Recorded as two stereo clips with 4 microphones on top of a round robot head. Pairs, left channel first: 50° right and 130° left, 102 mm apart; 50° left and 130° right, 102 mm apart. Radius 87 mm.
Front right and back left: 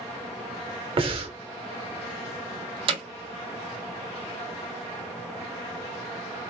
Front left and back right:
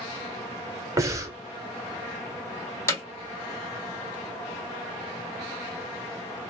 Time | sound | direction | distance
1.0 | breathing | 170° left | 0.8 m
2.9 | hammering | 110° left | 1.6 m